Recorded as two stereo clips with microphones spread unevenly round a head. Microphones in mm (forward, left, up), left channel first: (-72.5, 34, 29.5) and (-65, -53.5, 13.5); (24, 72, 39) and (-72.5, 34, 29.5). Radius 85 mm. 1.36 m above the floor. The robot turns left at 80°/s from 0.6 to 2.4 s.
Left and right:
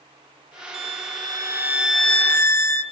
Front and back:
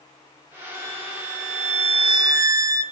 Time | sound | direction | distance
0.7 | a violin | 80° right | 2.5 m